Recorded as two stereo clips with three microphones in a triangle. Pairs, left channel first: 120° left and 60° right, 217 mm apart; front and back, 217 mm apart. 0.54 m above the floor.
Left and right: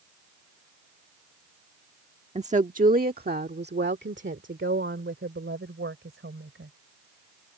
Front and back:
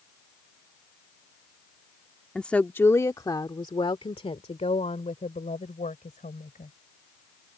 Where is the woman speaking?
85° right; by 6.7 s 50° right.